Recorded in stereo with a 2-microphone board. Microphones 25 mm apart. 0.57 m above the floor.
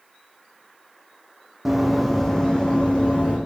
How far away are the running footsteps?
About 2.0 m.